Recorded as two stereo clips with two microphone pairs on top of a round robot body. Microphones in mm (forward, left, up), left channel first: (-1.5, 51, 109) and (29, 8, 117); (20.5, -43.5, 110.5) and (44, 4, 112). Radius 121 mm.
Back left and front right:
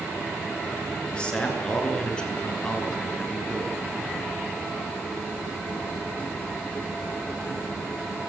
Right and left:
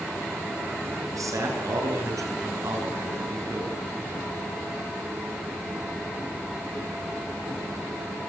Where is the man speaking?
55° left, 9 m; by 3.8 s 50° left, 5.5 m.